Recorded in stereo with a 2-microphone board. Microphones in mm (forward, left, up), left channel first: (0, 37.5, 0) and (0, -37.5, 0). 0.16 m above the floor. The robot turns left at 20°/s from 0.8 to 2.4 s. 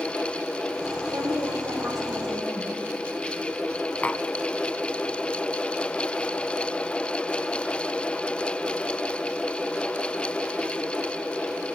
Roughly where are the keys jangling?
No keys jangling in this recording.